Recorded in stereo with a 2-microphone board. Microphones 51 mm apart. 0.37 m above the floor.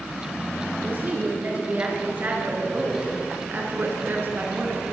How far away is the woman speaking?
About 6.5 m.